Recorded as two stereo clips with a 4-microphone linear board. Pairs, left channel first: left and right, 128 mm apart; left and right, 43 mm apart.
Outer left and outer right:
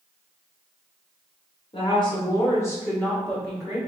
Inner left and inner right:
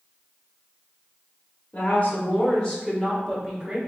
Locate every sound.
1.7 s a woman speaking: 45° left (ahead or behind), 1.4 m; by 3.8 s 10° right (ahead or behind), 1.0 m